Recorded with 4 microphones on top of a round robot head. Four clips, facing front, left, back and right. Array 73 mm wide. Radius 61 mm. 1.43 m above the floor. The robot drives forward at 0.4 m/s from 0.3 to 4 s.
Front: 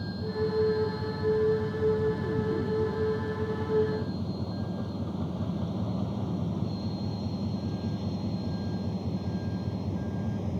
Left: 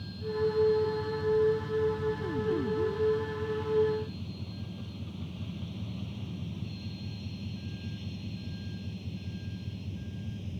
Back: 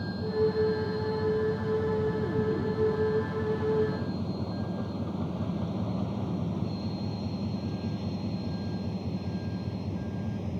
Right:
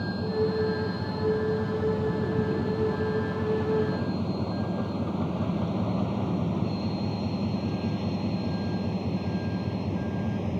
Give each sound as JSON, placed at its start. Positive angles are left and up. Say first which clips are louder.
{"t": 0.0, "sound": "a vehicle", "louder": "right 4 dB, back 3 dB", "azimuth_deg": -90}